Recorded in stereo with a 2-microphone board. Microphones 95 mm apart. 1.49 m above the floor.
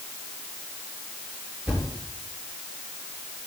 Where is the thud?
5° right (ahead or behind), 5.5 m.